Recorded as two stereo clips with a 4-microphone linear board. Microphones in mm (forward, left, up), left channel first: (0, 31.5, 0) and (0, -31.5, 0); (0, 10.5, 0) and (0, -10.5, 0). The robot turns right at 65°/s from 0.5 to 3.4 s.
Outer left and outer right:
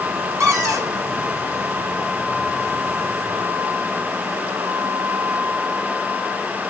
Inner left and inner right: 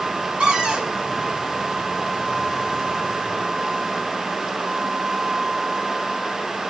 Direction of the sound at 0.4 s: 50° right (ahead or behind).